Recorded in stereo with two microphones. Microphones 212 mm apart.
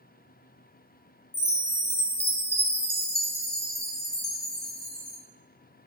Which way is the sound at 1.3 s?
45° left (ahead or behind).